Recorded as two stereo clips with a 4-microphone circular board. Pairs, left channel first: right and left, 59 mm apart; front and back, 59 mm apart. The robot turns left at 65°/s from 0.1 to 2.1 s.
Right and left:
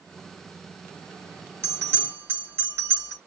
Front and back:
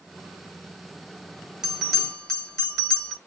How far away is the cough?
No cough in this recording.